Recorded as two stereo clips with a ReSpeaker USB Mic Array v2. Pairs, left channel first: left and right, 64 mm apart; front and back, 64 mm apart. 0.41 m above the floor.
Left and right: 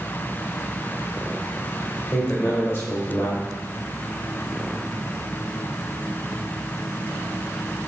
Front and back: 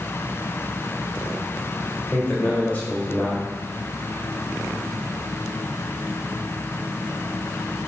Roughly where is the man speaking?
Ahead left.